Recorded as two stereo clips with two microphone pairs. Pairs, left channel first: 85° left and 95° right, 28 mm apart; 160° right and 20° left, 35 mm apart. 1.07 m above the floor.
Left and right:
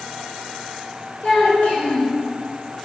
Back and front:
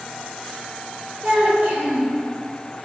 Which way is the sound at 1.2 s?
60° left.